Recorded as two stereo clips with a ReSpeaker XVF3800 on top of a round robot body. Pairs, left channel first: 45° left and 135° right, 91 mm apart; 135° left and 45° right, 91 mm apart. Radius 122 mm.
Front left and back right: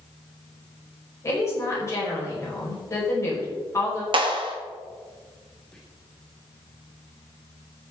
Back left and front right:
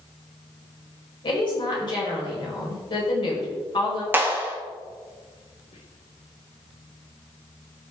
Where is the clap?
110° right, 1.9 m.